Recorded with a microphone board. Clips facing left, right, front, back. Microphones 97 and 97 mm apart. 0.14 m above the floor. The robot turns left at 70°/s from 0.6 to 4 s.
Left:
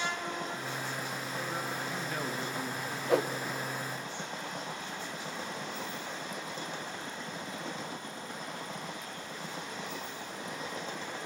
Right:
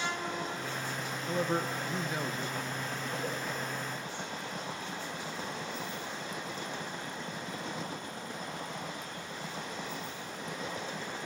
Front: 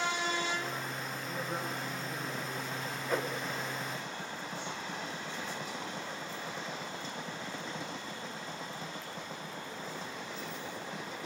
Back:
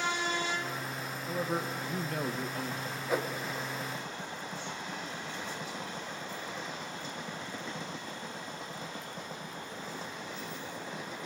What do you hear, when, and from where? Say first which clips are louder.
1.3 s a man speaking: right 9 dB, back 5 dB; 110° right, 3 m; by 3.0 s 130° left, 3 m
3.1 s a whoosh: left 12 dB, back 2 dB; 100° left, 2.5 m; by 3.3 s 85° left, 2.5 m